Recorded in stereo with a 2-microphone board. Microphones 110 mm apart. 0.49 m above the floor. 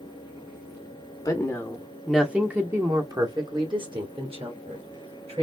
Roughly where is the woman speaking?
Left.